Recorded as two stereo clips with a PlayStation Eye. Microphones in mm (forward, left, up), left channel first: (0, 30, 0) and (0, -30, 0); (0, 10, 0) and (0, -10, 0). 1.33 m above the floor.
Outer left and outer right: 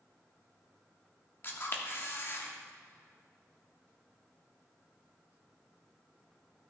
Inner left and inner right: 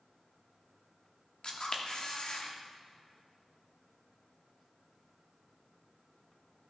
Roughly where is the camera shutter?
Left.